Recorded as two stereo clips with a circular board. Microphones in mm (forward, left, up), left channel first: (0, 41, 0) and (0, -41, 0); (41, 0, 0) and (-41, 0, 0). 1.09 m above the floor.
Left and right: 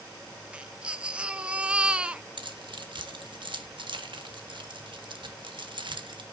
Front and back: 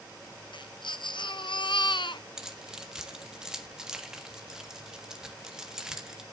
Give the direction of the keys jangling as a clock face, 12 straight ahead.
3 o'clock.